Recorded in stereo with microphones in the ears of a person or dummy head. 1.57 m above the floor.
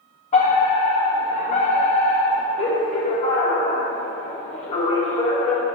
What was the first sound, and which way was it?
A fire alarm, 35° left (ahead or behind).